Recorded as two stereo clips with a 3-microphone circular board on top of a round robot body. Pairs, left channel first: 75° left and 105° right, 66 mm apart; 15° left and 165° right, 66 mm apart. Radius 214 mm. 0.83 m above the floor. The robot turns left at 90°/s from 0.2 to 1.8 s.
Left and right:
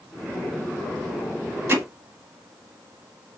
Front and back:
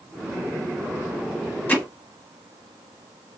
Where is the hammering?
55° right, 1.7 m; by 1.9 s 65° right, 1.7 m.